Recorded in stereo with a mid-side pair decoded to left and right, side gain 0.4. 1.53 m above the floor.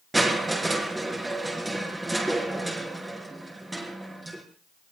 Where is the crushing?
15° right, 5.5 m.